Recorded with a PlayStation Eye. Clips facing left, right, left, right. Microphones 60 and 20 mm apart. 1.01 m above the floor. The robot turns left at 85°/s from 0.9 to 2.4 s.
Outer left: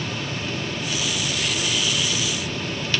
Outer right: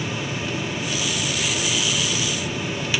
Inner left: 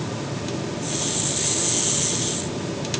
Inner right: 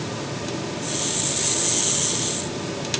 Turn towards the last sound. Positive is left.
No sound to turn to.